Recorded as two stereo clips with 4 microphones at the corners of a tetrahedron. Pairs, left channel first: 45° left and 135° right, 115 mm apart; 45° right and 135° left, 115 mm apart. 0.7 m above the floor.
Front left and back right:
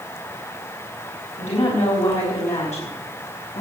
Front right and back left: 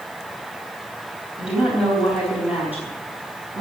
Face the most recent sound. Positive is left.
turn(degrees=65)